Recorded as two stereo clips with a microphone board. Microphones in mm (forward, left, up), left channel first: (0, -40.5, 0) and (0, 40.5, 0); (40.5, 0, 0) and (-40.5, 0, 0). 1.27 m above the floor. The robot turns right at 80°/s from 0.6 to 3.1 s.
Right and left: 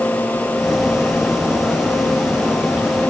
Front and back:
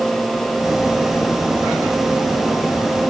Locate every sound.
Only background noise.